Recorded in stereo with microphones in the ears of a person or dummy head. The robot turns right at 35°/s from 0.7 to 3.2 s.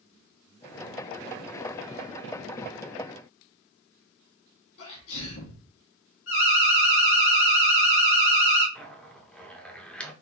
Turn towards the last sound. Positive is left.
turn(degrees=5)  # may be behind; listen again after turning